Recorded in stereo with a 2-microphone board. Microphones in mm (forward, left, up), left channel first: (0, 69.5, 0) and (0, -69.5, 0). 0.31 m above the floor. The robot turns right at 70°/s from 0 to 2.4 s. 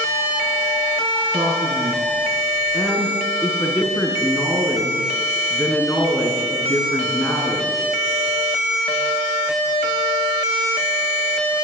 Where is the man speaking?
70° right, 3.5 m; by 7.7 s 5° left, 3.5 m.